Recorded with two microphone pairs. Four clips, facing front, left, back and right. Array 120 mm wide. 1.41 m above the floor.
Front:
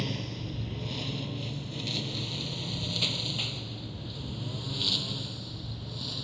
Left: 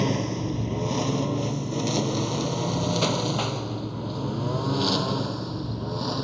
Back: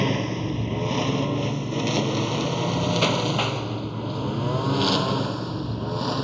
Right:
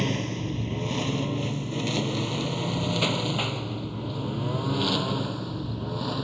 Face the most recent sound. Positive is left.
turn(degrees=165)